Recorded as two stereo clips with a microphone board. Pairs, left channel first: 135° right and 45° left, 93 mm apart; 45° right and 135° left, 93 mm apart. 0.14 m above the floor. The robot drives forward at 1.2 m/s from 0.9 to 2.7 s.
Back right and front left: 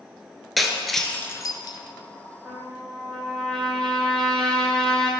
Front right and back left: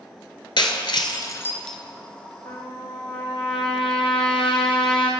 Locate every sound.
0.6 s breaking glass: 45° right, 0.9 m; by 1.8 s 130° right, 0.9 m
2.5 s a trumpet: 45° right, 1.8 m; by 5.1 s 50° right, 1.6 m